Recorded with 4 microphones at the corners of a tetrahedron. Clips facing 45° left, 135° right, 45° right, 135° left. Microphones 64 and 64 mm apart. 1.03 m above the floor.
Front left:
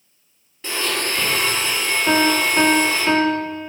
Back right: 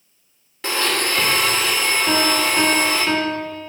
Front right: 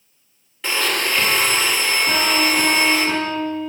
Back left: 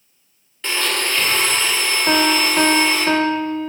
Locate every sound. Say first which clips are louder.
0.6 s a blender: back right 3 dB, front right 1 dB; 130° right, 2 m
2.1 s a piano: front left 4 dB, back left 4 dB; 100° left, 1.4 m